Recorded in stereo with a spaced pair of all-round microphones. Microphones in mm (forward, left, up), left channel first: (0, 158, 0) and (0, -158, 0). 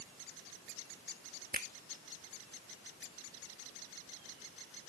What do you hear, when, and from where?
1.5 s a finger snap: 30° right (ahead or behind)